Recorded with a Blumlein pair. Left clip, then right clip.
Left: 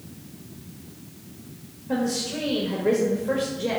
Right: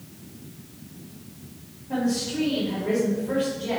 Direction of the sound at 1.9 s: 45° left.